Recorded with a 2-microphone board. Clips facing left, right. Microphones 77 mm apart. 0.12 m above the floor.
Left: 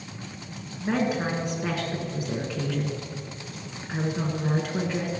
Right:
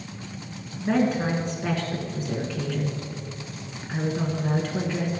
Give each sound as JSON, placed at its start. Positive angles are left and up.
{"t": 0.8, "sound": "a woman speaking", "side_deg": 10, "distance_m": 1.2}